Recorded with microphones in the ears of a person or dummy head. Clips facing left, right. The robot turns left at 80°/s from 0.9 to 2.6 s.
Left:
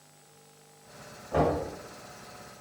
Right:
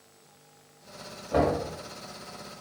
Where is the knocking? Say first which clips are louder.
Right 1 dB; 40° right (ahead or behind), 1.1 m; by 1.6 s 20° right (ahead or behind), 1.1 m.